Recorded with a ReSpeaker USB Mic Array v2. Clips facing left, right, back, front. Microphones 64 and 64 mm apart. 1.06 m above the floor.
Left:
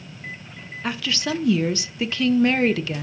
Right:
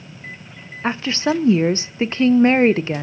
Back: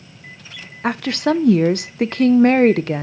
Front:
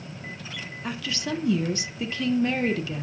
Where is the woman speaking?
150° right, 0.5 m.